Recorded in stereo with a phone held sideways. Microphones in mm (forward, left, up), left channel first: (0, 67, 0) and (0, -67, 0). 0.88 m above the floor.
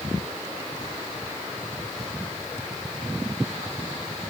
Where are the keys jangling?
I don't hear keys jangling.